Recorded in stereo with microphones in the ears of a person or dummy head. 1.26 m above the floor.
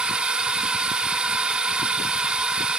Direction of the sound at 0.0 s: 5° right (ahead or behind).